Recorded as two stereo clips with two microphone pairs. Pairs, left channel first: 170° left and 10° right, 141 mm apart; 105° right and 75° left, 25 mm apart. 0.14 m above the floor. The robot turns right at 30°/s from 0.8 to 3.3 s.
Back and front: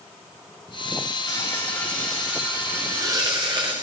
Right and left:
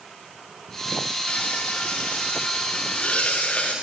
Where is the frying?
125° right, 7.5 m; by 3.7 s 65° right, 7.5 m.